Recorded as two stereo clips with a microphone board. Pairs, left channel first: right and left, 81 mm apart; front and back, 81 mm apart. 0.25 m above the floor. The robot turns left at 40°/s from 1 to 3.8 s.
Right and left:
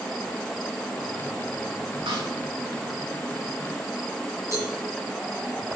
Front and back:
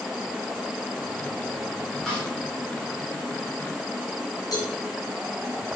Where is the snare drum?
85° left, 6.5 m; by 2.3 s 75° left, 6.5 m.